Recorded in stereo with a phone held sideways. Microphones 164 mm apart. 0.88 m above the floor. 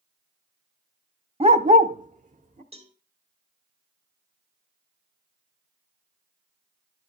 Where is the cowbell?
40° right (ahead or behind), 1.4 m.